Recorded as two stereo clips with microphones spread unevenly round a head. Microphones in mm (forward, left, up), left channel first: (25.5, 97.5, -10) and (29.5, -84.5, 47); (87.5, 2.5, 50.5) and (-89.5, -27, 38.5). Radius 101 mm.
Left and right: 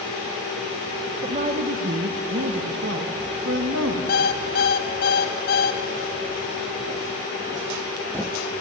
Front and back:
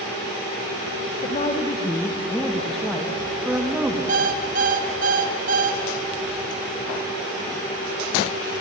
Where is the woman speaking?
40° right, 1.1 m; by 4.0 s 90° right, 2 m.